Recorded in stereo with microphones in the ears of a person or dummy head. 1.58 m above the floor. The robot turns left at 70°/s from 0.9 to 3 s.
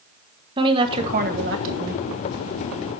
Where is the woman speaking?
30° right, 1.5 m; by 2.0 s 110° right, 1.5 m.